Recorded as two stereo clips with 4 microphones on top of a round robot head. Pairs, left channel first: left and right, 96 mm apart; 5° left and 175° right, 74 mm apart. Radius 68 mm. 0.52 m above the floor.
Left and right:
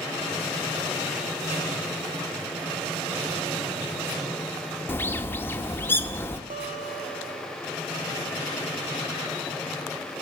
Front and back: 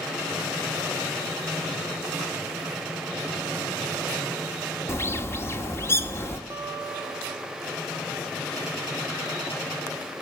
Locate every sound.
4.9 s a bird: 35° left, 1.7 m
6.5 s a guitar: 105° right, 1.8 m